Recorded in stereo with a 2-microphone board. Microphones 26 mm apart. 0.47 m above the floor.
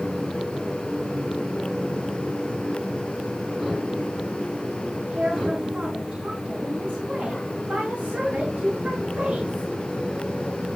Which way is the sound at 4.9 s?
75° right (ahead or behind).